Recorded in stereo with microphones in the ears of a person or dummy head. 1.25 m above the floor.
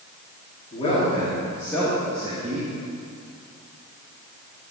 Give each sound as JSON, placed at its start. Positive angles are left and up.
{"t": 0.7, "sound": "a man speaking", "side_deg": 25, "distance_m": 3.0}